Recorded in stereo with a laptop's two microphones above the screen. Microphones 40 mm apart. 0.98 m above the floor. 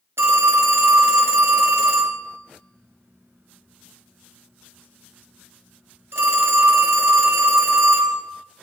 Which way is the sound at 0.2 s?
70° right (ahead or behind).